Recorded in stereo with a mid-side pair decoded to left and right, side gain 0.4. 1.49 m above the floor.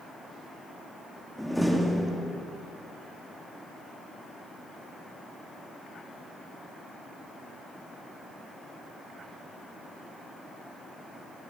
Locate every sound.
1.4 s a door slam: 5° right, 2.5 m